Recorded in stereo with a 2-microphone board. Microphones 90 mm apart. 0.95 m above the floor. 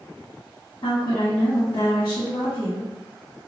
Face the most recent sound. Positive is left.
turn(degrees=45)  # may be behind; listen again after turning